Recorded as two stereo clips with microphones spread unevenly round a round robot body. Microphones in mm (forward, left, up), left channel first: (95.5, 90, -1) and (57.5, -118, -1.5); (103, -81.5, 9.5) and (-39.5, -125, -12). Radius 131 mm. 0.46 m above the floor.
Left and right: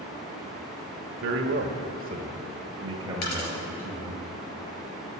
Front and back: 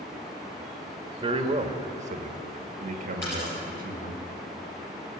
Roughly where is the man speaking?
Behind right.